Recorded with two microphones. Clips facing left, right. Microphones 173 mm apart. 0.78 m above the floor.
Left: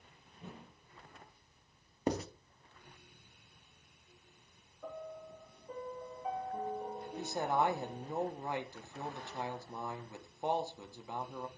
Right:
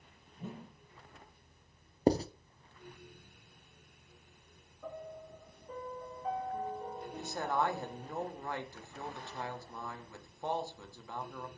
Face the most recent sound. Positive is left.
turn(degrees=20)  # may be behind; listen again after turning